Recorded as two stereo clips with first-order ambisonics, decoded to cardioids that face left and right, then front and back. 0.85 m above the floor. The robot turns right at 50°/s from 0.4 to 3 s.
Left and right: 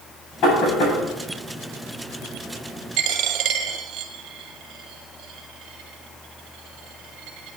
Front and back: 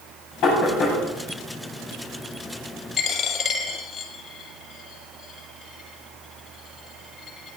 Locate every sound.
0.4 s knocking: 40° left, 6 m; by 1.0 s 70° left, 6 m
3.0 s a dropped coin: 70° right, 2 m